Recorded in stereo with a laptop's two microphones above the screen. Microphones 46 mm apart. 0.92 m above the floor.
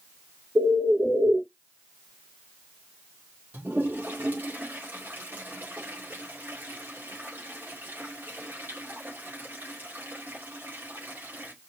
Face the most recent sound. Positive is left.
turn(degrees=-45)  # may be behind; listen again after turning